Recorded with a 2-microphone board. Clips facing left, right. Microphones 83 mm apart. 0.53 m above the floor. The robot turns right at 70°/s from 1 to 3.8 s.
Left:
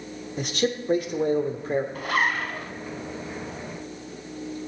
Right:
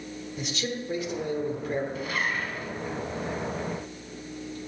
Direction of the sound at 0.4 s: 95° left.